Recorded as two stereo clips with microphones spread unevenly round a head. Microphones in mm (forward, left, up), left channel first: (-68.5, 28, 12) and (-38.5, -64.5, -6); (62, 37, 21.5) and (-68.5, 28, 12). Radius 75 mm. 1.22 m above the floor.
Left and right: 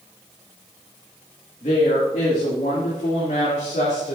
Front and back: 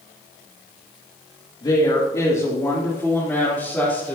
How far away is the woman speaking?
About 2 m.